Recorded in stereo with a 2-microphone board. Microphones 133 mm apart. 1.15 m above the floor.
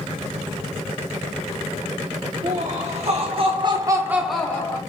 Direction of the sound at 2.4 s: 60° right (ahead or behind).